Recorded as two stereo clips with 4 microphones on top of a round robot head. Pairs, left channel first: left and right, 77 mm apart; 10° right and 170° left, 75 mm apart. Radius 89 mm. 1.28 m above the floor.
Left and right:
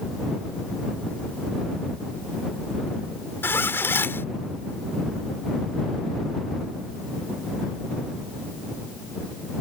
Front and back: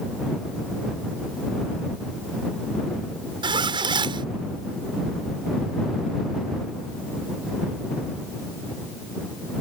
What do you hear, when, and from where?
3.4 s a zipper: 155° left